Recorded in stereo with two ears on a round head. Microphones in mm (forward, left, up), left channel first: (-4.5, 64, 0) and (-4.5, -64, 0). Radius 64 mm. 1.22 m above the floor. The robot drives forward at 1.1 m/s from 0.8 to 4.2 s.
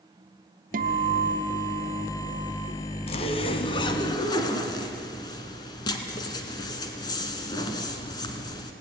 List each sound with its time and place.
0.7 s a guitar: 60° right (ahead or behind), 0.6 m; by 2.7 s 15° right (ahead or behind), 2 m
3.1 s a zipper: 45° left (ahead or behind), 1.5 m; by 8.7 s 30° left (ahead or behind), 2 m